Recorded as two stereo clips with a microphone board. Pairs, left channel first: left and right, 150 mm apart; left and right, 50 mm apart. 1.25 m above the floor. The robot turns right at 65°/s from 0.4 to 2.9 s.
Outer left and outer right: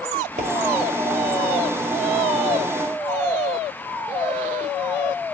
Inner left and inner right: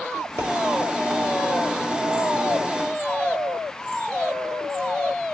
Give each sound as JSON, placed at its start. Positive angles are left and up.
{"t": 0.4, "sound": "a pop", "side_deg": -60, "distance_m": 3.5}